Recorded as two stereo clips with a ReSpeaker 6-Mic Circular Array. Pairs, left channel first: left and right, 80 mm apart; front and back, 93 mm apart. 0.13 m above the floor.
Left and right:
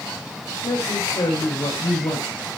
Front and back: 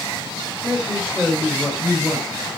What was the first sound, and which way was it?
A woman speaking, 100° left.